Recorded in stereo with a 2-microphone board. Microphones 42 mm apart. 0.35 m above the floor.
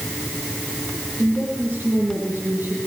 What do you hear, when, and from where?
1.2 s a woman speaking: 55° right (ahead or behind), 9 m